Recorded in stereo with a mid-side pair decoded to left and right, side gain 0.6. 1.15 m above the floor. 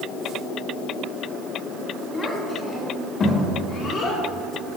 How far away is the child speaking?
About 1.6 m.